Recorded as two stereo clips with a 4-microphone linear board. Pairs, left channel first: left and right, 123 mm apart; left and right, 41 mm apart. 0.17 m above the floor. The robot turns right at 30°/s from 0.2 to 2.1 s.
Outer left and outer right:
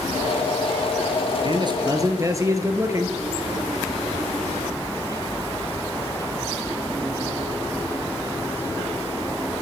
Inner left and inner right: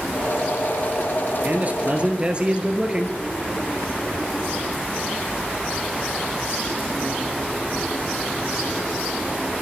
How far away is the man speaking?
About 2.5 m.